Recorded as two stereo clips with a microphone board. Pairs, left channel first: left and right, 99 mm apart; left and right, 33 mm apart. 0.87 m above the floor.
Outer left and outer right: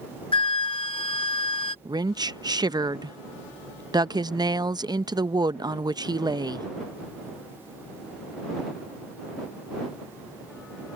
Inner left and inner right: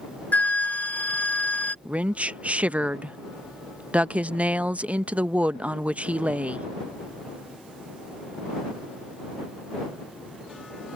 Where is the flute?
60° left (ahead or behind).